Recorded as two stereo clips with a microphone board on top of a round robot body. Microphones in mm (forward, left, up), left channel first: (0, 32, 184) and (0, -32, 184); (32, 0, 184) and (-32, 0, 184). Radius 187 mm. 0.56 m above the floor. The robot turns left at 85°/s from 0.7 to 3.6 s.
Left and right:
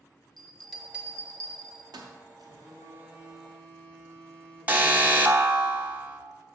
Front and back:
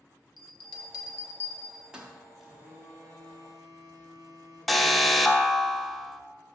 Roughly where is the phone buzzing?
Right.